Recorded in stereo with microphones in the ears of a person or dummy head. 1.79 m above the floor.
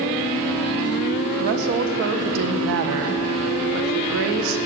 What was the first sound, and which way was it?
A woman speaking, 60° right (ahead or behind).